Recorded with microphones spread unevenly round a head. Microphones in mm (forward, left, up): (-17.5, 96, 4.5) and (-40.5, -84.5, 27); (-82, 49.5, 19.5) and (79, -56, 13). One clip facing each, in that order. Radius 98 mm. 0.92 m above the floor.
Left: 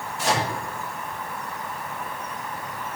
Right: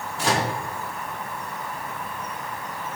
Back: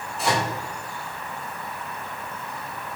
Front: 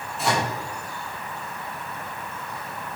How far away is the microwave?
About 2 m.